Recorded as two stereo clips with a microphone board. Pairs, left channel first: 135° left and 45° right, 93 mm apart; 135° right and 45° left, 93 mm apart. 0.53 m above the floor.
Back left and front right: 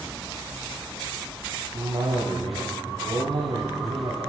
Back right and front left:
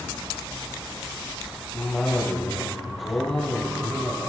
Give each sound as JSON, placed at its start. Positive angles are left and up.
{"t": 1.7, "sound": "a cough", "azimuth_deg": -50, "distance_m": 3.0}